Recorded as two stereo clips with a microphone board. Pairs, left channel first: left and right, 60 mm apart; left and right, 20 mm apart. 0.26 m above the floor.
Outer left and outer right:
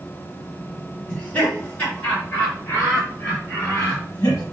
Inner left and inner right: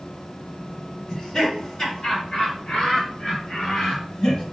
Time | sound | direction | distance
1.1 | laughter | 20° left (ahead or behind) | 3 m